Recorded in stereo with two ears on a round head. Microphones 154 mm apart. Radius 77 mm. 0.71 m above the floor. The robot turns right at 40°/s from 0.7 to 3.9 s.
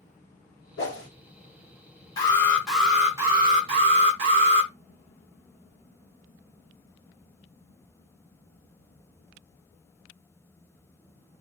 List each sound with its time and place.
0.8 s a whoosh: 70° left (ahead or behind), 1.8 m
2.2 s an alarm: 155° left, 1.8 m; by 4.7 s 135° right, 1.8 m